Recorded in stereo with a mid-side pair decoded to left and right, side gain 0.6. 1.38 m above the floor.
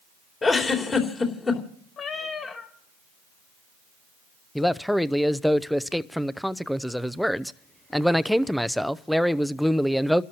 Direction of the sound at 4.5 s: Straight ahead.